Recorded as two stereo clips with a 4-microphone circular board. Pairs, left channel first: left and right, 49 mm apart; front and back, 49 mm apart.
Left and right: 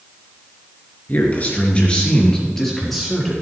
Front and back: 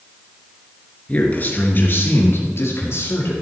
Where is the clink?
No clink in this recording.